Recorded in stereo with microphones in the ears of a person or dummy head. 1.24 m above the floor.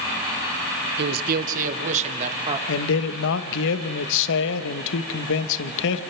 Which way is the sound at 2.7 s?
70° left (ahead or behind).